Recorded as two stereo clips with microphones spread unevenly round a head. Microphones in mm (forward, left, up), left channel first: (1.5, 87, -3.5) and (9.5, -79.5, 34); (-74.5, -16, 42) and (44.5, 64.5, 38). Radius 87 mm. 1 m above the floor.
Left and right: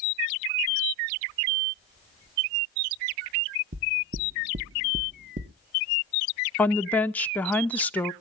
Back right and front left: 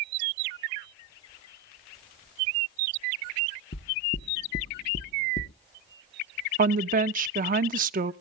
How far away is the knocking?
About 1.0 m.